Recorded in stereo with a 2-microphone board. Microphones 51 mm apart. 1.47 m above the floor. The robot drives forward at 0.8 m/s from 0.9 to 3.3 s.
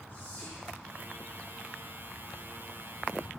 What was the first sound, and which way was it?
Whispering, 50° left (ahead or behind).